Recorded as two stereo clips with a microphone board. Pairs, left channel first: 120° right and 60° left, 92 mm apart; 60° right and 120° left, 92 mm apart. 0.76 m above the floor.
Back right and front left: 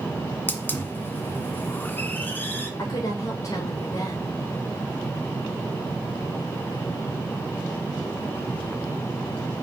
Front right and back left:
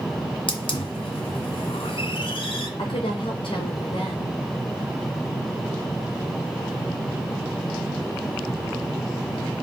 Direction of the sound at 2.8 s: 70° right.